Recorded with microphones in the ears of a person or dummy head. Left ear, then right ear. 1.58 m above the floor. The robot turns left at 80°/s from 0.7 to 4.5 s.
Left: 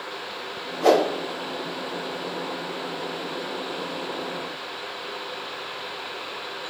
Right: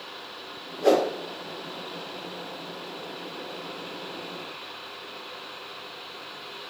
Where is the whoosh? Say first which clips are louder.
Left 3 dB; 55° left (ahead or behind), 1.4 m; by 1.1 s 65° left (ahead or behind), 1.4 m.